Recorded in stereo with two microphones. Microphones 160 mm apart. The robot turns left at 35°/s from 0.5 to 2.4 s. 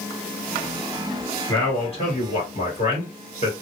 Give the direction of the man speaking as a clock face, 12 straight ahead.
7 o'clock.